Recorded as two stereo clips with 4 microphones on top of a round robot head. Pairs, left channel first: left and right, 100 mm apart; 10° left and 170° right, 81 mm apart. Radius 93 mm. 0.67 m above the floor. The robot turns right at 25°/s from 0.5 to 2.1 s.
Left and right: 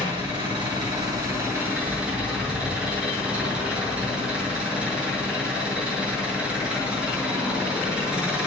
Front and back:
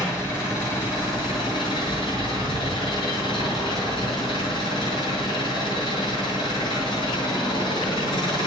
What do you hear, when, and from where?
0.0 s an engine running: 50° right, 8.5 m; by 8.5 s 10° right, 8.5 m